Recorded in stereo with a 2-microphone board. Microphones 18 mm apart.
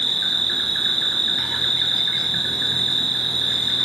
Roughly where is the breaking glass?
I don't hear breaking glass.